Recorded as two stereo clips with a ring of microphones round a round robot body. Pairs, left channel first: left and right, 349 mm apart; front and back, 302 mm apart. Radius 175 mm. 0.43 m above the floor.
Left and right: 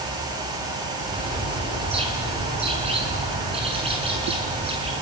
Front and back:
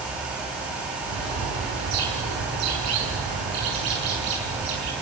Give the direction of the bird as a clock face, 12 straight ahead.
5 o'clock.